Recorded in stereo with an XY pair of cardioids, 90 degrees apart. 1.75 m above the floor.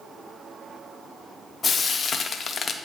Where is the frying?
45° left, 0.9 m.